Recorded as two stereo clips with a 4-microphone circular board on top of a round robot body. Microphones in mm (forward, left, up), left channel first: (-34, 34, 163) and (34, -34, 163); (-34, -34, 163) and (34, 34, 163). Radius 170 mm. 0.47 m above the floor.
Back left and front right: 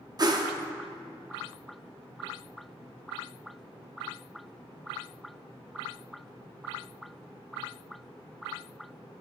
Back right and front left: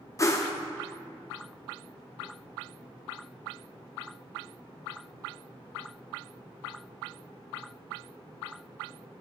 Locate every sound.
0.2 s a whoosh: 85° right, 0.7 m